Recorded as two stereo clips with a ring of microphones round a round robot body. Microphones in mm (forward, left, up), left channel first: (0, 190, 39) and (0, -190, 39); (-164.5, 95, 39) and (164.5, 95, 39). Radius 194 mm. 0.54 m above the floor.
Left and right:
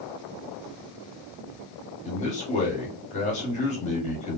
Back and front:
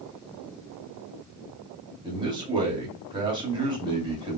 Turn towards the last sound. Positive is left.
turn(degrees=50)